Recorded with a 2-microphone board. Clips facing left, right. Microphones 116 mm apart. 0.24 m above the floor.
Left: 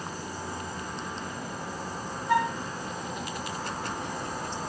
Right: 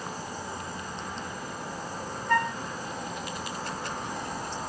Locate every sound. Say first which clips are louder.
2.3 s a flute: left 1 dB; 10° left (ahead or behind), 1.0 m